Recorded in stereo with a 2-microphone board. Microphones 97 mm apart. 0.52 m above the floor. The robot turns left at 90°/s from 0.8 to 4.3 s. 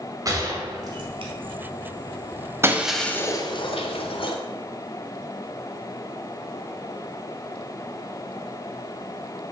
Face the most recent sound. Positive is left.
turn(degrees=55)  # may be behind; listen again after turning